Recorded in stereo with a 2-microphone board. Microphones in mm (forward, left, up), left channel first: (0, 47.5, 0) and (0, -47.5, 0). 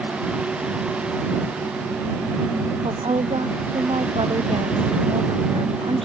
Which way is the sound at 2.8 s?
85° right.